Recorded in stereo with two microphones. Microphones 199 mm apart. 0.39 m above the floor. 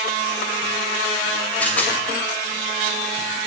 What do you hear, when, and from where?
1.6 s a rattle: 5° left (ahead or behind), 2 m